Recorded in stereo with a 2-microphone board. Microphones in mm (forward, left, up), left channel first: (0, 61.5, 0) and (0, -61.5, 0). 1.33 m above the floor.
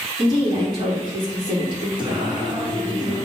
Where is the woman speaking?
35° right (ahead or behind), 1.8 m.